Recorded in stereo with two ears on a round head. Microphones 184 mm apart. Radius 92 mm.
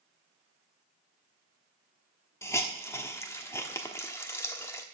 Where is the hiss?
15° left (ahead or behind), 1.0 m.